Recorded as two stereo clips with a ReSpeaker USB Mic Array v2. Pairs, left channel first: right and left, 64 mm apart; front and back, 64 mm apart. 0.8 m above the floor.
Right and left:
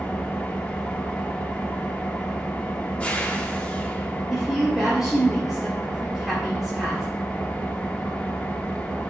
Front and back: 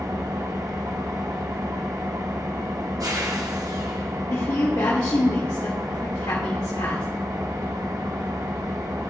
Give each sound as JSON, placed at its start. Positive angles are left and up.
{"t": 0.0, "sound": "an engine running", "azimuth_deg": -160, "distance_m": 1.0}
{"t": 4.3, "sound": "a woman speaking", "azimuth_deg": 5, "distance_m": 1.7}